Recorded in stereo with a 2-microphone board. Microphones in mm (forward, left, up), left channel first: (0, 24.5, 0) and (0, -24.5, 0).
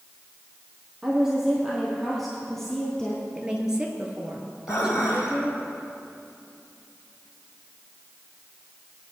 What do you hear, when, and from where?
1.0 s a woman speaking: 10° right (ahead or behind), 3 m; by 3.2 s 10° left (ahead or behind), 2.5 m
3.4 s a woman speaking: 15° right (ahead or behind), 2 m
4.7 s dishes clattering: 70° left (ahead or behind), 3 m